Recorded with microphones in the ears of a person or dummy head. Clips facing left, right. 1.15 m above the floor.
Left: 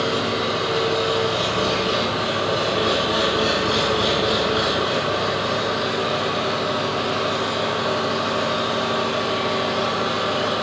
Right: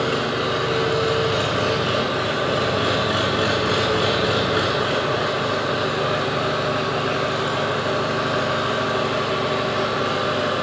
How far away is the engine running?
About 3.5 m.